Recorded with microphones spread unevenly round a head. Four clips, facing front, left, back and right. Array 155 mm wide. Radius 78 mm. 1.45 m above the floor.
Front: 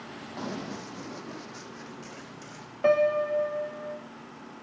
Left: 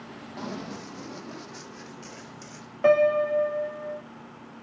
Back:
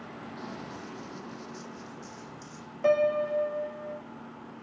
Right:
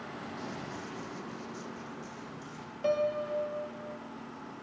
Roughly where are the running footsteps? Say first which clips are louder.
Left 9 dB, front 7 dB; ahead left.